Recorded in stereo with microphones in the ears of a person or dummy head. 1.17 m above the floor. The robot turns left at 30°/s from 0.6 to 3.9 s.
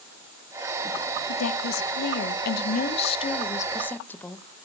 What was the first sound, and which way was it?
A woman speaking, 90° left.